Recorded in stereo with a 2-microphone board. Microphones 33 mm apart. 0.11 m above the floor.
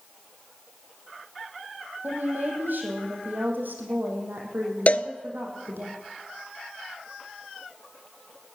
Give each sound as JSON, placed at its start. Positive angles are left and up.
{"t": 2.0, "sound": "a woman speaking", "side_deg": -75, "distance_m": 4.5}
{"t": 4.9, "sound": "a cowbell", "side_deg": 45, "distance_m": 0.5}